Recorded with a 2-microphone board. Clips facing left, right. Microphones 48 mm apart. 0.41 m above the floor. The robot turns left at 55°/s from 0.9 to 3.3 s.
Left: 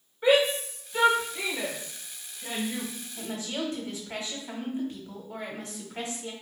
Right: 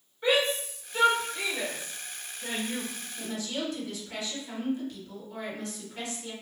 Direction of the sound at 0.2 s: 15° left (ahead or behind).